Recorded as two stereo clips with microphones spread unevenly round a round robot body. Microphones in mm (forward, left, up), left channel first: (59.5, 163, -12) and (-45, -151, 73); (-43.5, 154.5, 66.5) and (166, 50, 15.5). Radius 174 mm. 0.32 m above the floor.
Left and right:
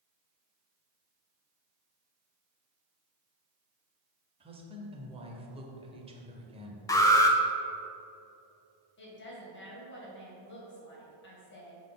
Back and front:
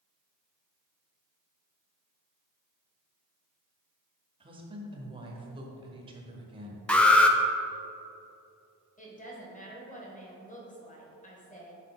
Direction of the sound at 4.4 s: 20° right.